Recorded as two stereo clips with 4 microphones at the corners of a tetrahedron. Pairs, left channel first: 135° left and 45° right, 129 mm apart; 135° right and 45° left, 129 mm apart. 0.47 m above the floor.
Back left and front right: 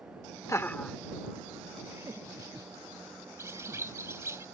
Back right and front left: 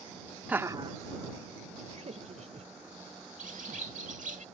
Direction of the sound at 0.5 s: 115° left.